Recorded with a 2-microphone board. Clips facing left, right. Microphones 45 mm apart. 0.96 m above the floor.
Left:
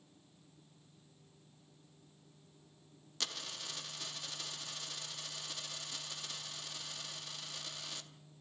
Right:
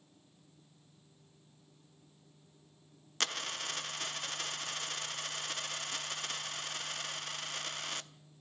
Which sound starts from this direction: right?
A dropped coin, at 3.2 s.